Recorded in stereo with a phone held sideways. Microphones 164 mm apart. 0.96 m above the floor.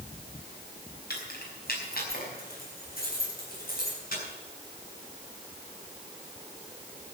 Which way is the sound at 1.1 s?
70° left (ahead or behind).